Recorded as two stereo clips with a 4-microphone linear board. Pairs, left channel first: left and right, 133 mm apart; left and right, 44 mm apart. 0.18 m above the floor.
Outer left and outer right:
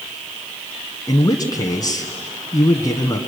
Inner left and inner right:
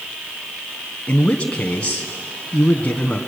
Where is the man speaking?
30° left (ahead or behind), 1.4 m.